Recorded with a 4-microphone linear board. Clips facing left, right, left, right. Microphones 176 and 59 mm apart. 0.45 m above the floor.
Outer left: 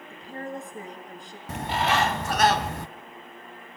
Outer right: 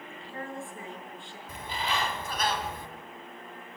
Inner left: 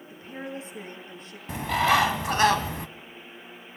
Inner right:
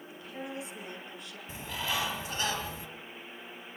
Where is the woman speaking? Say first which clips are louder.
Outer left 4 dB, inner left 4 dB; 40° left (ahead or behind), 6.5 m.